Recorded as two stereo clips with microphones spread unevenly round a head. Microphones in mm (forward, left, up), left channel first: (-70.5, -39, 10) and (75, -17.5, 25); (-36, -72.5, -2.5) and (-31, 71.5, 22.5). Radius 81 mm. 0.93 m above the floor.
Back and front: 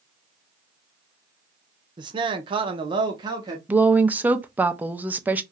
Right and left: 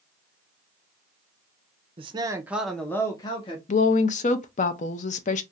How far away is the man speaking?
About 0.6 m.